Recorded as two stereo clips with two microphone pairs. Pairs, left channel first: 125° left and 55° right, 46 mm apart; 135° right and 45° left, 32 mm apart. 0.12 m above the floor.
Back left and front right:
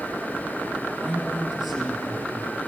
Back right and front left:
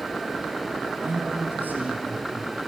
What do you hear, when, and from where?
1.0 s a man speaking: 35° left, 4 m